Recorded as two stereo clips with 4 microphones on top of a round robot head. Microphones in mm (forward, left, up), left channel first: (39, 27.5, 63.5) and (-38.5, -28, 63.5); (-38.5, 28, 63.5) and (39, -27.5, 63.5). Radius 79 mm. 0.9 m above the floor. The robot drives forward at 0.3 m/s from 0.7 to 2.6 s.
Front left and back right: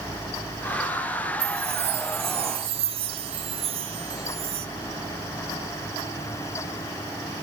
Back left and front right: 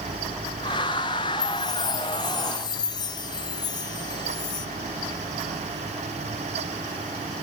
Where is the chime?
165° right, 2 m.